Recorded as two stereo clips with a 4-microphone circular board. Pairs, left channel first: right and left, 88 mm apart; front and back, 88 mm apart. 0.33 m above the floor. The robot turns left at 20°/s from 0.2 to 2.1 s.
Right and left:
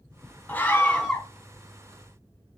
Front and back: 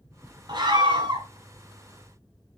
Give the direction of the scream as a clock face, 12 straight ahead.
5 o'clock.